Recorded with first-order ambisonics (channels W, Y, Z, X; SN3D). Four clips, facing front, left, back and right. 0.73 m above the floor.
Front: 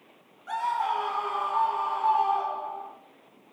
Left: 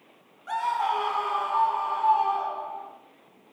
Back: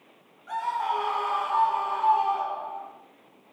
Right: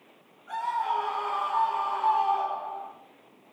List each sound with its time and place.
0.5 s a scream: 65° left, 0.8 m; by 2.9 s 160° right, 1.7 m